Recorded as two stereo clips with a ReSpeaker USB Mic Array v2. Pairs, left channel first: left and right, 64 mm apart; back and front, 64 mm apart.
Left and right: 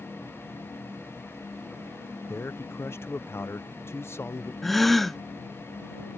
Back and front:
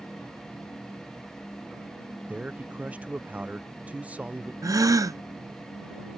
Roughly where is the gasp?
Ahead.